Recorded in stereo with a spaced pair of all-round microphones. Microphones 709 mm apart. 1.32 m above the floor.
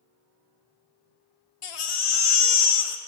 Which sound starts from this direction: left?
A baby crying, at 1.6 s.